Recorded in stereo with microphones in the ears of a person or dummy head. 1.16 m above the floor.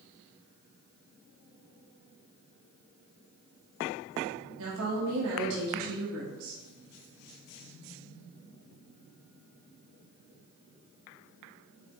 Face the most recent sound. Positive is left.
turn(degrees=-80)